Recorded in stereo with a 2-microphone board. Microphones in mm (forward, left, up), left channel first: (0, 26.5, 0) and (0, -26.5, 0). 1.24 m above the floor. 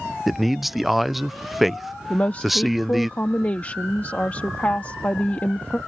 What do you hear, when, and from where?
0.3 s a man speaking: centre (ahead or behind)
2.1 s a woman speaking: 30° left (ahead or behind)